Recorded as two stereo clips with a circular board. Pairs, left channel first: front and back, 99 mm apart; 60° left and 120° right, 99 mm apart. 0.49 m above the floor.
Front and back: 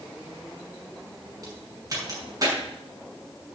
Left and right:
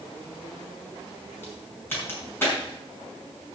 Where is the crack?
125° left, 5.5 m.